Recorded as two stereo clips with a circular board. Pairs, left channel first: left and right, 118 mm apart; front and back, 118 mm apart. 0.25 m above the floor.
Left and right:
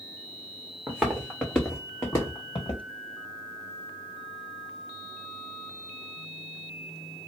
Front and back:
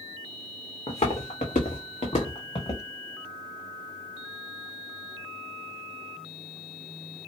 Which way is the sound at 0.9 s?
10° right.